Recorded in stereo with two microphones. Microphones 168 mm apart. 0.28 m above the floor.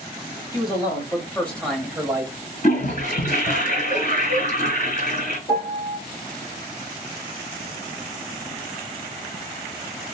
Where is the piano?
30° left (ahead or behind), 0.9 m.